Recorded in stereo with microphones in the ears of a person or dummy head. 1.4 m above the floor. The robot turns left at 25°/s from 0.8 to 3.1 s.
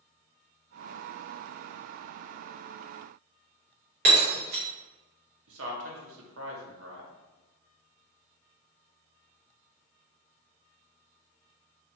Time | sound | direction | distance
4.0 | breaking glass | 50° right (ahead or behind) | 0.8 m
5.5 | a man speaking | 70° right (ahead or behind) | 0.9 m